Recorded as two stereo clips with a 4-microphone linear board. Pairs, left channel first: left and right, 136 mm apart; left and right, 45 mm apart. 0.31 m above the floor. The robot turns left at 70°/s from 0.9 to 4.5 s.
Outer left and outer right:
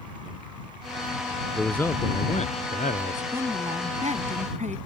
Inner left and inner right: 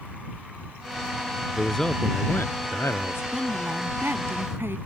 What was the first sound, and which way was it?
A man speaking, straight behind.